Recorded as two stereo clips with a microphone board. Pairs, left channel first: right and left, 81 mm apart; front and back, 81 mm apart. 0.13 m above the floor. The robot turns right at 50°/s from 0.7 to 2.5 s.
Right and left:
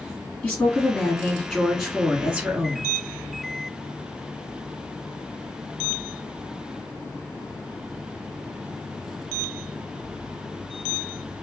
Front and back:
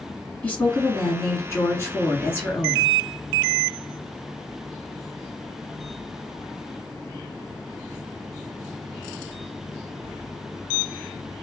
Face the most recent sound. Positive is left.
turn(degrees=45)